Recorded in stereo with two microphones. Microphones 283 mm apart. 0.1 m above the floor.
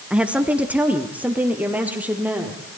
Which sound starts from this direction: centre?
A woman speaking, at 0.1 s.